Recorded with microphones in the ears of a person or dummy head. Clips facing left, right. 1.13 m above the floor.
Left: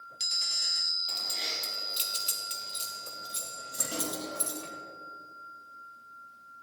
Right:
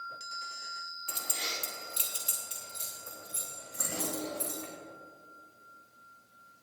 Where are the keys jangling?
20° right (ahead or behind), 1.5 m; by 4.7 s 60° left (ahead or behind), 4.5 m.